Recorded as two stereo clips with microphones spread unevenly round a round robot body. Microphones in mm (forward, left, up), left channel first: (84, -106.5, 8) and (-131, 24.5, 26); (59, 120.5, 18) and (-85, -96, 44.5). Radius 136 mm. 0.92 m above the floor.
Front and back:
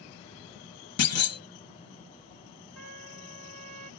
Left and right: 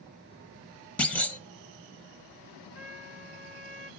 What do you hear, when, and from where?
1.0 s a clunk: 20° right, 1.0 m
2.8 s a trumpet: 115° left, 8.5 m